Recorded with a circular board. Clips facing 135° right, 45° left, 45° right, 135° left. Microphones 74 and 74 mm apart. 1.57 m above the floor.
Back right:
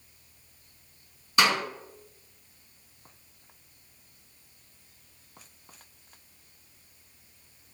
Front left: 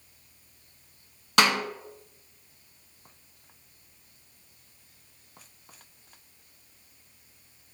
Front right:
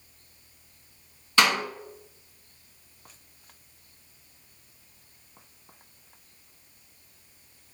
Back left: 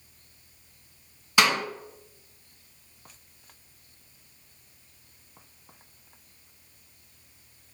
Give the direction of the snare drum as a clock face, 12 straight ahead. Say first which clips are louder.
Front left 1 dB, even; 10 o'clock.